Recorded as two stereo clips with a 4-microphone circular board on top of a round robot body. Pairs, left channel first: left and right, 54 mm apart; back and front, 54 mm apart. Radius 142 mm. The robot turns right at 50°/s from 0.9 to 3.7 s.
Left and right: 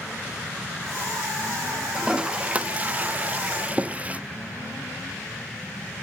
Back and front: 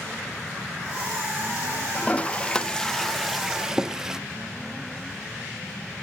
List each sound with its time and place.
1.9 s a toilet flushing: 150° right, 0.5 m; by 4.2 s 65° right, 0.5 m